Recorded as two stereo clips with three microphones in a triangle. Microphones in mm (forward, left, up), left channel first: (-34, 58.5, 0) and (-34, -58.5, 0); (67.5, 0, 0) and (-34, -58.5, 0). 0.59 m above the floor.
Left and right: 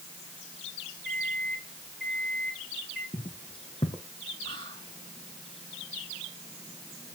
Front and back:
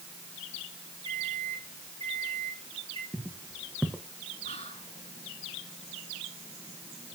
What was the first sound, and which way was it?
A microwave, 175° left.